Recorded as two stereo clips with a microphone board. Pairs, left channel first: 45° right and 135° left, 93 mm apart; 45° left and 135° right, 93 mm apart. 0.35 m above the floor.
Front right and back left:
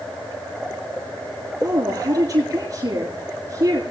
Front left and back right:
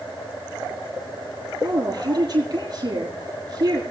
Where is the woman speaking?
Straight behind, 7.5 m.